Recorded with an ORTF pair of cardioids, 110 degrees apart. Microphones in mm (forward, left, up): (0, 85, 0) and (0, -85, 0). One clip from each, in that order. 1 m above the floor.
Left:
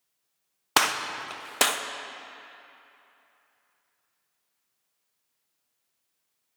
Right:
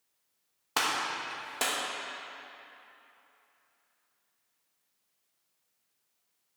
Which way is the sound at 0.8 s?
50° left.